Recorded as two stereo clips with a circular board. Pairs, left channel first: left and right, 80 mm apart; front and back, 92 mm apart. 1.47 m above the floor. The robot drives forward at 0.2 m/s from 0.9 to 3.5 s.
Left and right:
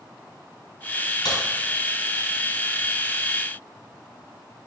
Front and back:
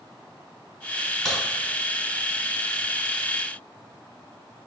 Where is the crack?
80° left, 4 m; by 1.4 s 85° left, 4 m.